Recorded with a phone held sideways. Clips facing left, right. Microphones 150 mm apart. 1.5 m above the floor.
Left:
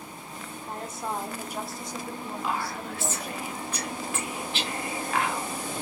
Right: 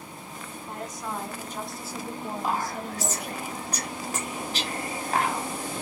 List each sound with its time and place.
0.7 s a woman speaking: 30° left (ahead or behind), 1.0 m; by 3.4 s 70° right (ahead or behind), 0.9 m
2.4 s whispering: 40° right (ahead or behind), 0.9 m